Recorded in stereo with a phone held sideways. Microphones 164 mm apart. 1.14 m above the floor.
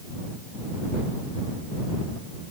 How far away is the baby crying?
I don't hear a baby crying.